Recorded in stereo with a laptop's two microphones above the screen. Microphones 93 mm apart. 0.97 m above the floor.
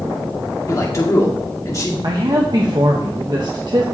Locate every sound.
0.7 s a man speaking: 35° left (ahead or behind), 1.8 m
2.0 s a man speaking: 50° right (ahead or behind), 1.1 m